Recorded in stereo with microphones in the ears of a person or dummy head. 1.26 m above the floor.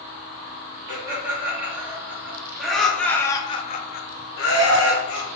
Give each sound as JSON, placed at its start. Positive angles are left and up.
{"t": 0.9, "sound": "laughter", "side_deg": -20, "distance_m": 1.9}